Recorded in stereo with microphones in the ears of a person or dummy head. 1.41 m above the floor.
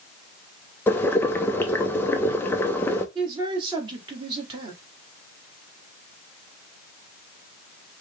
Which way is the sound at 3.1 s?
25° right (ahead or behind).